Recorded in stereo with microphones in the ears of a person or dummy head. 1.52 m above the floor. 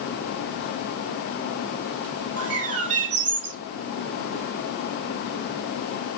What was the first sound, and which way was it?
A bird, 70° right (ahead or behind).